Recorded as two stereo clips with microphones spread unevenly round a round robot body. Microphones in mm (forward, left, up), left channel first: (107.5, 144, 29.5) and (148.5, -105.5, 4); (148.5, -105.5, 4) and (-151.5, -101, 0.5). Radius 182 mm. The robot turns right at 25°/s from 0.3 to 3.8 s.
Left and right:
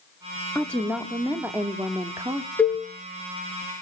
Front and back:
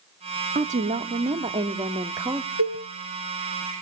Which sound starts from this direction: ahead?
A cowbell, at 2.6 s.